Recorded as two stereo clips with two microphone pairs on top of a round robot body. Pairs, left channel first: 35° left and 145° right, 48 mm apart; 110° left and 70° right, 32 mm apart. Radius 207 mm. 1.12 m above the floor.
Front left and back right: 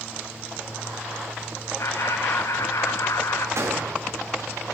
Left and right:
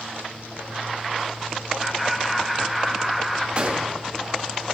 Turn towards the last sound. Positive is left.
turn(degrees=-125)